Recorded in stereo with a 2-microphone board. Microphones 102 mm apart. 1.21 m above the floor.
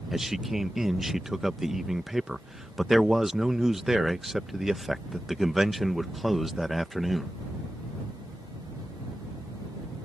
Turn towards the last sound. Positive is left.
turn(degrees=-5)  # may be behind; listen again after turning